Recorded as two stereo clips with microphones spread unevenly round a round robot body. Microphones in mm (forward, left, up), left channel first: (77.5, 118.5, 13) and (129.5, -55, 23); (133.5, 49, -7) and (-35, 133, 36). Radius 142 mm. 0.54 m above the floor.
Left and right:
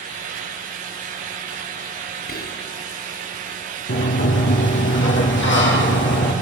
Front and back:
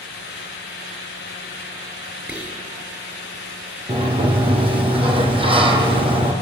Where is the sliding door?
95° left, 5 m.